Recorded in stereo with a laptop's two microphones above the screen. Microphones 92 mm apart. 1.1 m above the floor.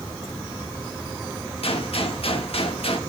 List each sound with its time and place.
1.6 s a gunshot: 80° left, 1.4 m